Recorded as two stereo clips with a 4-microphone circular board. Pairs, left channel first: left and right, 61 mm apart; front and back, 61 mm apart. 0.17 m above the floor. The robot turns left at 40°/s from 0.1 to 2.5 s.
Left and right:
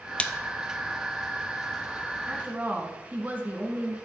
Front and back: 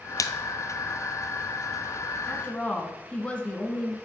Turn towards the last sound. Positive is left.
turn(degrees=-50)